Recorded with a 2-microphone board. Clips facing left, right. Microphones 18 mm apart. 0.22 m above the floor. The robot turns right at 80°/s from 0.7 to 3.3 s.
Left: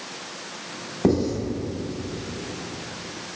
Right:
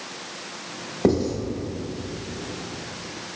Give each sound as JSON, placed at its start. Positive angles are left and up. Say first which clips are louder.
{"t": 1.0, "sound": "writing", "louder": "even", "side_deg": -15, "distance_m": 0.8}